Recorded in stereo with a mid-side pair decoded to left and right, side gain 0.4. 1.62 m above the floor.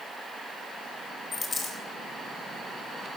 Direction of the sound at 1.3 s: 45° left.